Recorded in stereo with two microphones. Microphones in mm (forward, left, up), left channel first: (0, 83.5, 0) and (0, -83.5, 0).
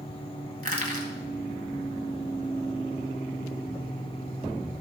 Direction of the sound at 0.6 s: 60° right (ahead or behind).